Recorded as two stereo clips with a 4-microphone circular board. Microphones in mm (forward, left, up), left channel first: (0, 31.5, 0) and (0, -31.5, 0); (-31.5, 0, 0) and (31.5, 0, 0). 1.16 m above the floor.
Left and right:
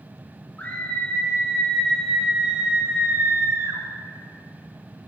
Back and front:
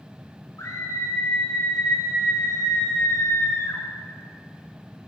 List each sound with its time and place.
0.6 s a scream: 155° left, 2.5 m; by 3.8 s 135° right, 2.5 m